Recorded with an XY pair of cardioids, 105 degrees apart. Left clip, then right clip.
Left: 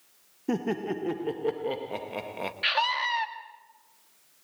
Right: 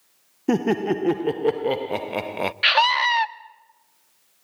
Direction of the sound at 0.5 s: 55° right.